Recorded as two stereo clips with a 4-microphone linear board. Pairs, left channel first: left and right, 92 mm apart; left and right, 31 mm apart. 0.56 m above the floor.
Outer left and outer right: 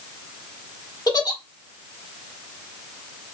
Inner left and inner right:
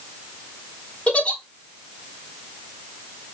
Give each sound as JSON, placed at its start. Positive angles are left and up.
{"t": 1.1, "sound": "a giggle", "side_deg": 45, "distance_m": 1.1}